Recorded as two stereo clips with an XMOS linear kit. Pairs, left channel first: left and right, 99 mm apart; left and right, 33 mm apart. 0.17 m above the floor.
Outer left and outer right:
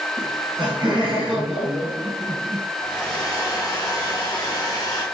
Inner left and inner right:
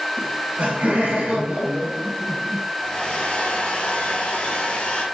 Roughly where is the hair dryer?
Left.